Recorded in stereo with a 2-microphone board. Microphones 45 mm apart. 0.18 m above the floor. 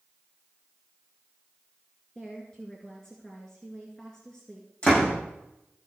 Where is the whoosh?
No whoosh in this recording.